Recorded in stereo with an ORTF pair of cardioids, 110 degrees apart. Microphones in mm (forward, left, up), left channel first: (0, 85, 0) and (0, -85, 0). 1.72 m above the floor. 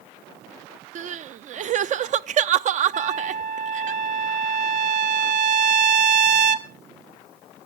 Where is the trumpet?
45° right, 1.4 m.